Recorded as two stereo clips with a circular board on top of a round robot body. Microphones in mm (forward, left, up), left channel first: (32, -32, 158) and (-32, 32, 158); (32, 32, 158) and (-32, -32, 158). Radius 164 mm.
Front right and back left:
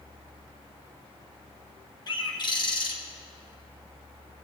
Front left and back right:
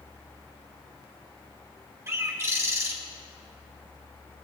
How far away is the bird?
About 1.4 m.